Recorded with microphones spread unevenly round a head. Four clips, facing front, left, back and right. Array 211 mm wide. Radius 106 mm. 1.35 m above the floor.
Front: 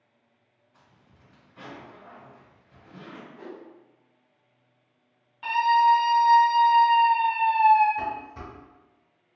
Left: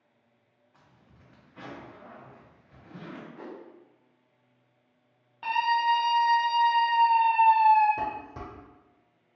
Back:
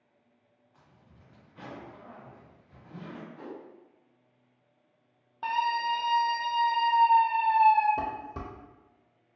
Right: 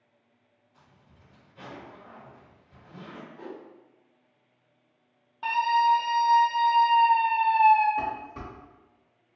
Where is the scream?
170° right, 0.6 m.